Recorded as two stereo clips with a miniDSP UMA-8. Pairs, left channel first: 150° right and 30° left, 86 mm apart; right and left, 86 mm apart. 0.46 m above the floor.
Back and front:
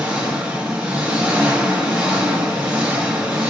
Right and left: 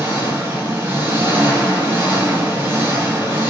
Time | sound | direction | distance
0.0 | an engine running | 85° left | 0.8 m